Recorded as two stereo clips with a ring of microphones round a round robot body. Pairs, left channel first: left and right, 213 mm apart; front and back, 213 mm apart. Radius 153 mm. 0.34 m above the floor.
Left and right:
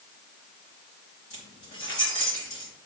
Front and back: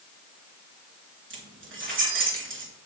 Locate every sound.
1.3 s keys jangling: 155° left, 4 m